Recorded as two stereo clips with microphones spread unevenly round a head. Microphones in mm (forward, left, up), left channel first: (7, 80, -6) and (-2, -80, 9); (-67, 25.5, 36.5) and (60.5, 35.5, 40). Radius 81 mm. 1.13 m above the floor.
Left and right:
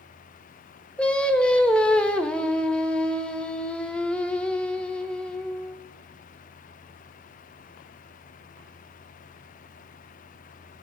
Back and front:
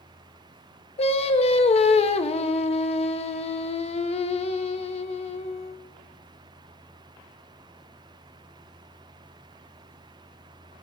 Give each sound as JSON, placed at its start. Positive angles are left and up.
{"t": 1.0, "sound": "singing", "azimuth_deg": 165, "distance_m": 0.8}